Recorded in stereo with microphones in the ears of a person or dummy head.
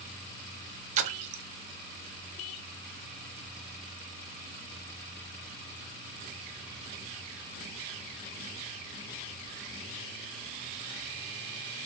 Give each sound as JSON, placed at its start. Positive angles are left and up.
{"t": 1.0, "sound": "a splash", "side_deg": -40, "distance_m": 0.7}